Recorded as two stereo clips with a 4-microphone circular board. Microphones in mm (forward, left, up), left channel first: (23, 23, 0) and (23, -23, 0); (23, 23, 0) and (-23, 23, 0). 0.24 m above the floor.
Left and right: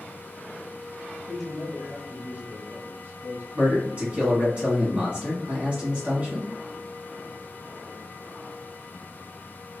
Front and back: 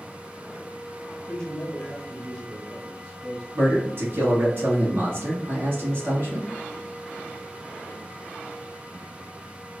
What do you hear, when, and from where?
1.3 s a man speaking: 20° left, 1.0 m; by 3.4 s 90° right, 1.4 m
3.5 s a man speaking: 150° right, 1.7 m